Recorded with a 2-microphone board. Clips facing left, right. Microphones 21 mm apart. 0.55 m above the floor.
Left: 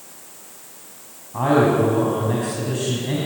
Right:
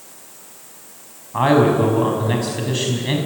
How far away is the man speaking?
About 5 m.